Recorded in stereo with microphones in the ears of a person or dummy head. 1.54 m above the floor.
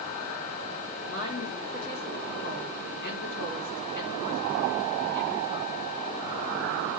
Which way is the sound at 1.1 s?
50° left (ahead or behind).